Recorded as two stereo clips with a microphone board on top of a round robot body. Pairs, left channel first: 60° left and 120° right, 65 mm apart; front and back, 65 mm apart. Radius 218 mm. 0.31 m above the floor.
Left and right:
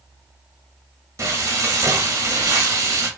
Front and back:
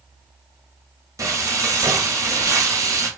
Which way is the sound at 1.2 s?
150° right.